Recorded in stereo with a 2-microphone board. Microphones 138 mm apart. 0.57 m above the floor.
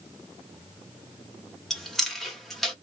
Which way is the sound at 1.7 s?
Centre (ahead or behind).